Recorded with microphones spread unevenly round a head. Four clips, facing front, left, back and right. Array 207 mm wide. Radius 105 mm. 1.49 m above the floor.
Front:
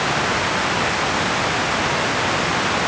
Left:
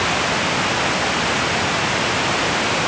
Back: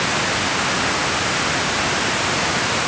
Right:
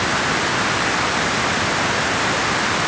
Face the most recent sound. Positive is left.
No sound to turn to.